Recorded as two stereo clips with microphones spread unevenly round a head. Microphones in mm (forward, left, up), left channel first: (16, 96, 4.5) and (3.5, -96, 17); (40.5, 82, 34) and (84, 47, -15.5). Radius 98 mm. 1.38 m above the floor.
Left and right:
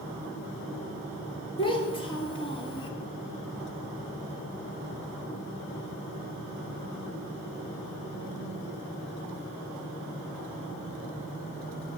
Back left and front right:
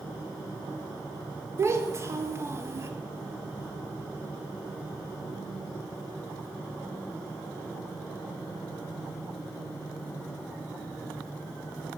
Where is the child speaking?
20° left, 1.8 m.